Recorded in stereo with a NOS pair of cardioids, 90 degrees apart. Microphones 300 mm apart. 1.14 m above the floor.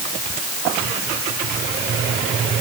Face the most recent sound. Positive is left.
No sound to turn to.